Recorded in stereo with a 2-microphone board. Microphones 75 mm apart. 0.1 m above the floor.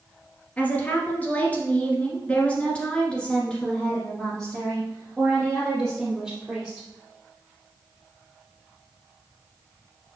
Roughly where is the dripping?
I don't hear dripping.